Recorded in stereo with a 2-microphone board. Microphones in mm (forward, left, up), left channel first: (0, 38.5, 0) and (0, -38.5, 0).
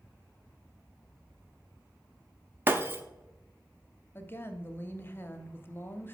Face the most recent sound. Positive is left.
turn(degrees=30)  # may be behind; listen again after turning